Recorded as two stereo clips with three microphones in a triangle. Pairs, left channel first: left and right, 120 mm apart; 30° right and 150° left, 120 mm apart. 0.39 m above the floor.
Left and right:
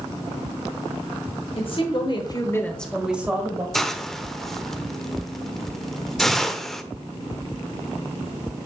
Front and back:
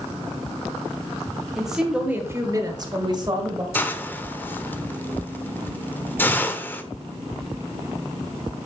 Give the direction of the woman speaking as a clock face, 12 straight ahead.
10 o'clock.